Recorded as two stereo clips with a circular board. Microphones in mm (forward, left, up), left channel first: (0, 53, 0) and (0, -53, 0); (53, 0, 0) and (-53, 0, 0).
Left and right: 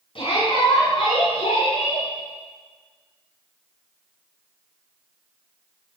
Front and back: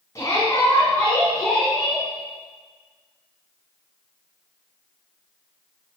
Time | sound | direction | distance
0.1 | a shout | 60° left | 5 m